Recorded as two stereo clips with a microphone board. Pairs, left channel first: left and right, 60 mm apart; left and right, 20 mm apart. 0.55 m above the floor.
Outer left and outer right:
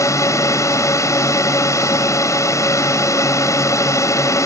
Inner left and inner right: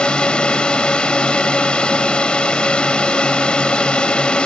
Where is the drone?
60° left (ahead or behind).